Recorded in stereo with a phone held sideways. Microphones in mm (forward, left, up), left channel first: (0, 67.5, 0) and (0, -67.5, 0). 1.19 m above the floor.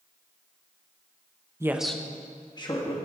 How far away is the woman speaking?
About 0.7 m.